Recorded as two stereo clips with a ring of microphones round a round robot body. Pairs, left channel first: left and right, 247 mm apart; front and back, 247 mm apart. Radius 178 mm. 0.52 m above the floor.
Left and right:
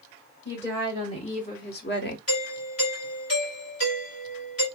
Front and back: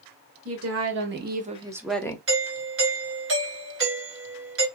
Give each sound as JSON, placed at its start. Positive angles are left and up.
{"t": 0.5, "sound": "a woman speaking", "azimuth_deg": 175, "distance_m": 1.6}
{"t": 2.3, "sound": "a doorbell", "azimuth_deg": 150, "distance_m": 3.0}